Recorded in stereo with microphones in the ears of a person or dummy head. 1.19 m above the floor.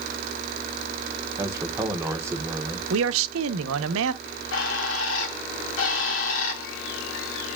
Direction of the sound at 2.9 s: 75° right (ahead or behind).